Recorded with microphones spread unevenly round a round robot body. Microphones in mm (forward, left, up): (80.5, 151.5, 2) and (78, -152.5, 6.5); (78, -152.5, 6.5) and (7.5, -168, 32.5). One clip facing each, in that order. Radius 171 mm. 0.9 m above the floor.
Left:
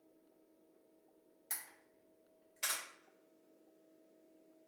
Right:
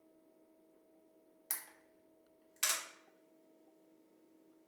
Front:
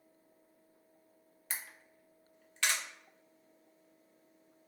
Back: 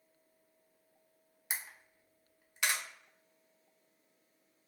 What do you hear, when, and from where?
1.5 s a camera shutter: 65° right, 0.7 m